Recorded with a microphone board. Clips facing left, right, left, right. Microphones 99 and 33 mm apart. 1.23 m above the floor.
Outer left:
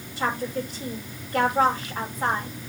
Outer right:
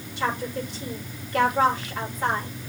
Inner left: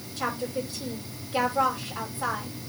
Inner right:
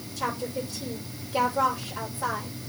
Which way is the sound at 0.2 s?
40° left (ahead or behind).